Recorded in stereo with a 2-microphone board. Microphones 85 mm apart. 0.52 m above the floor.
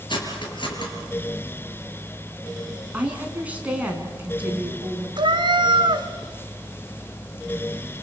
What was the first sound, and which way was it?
Cutlery clinking, 60° left (ahead or behind).